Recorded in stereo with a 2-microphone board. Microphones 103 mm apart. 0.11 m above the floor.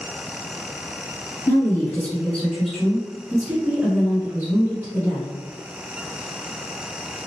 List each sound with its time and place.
1.5 s a woman speaking: 20° left (ahead or behind), 1.6 m; by 5.3 s 30° right (ahead or behind), 1.9 m